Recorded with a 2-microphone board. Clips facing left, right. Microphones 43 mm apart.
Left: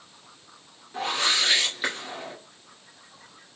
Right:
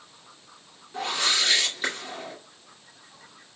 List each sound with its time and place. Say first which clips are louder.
0.9 s a whoosh: left 1 dB; 10° left (ahead or behind), 1.9 m